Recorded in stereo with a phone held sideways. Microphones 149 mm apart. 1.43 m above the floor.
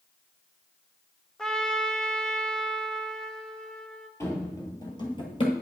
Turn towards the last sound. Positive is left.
turn(degrees=35)  # may be behind; listen again after turning